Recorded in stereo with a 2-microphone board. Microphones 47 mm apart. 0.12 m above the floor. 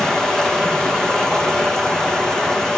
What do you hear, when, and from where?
0.0 s running water: 15° left (ahead or behind), 2 m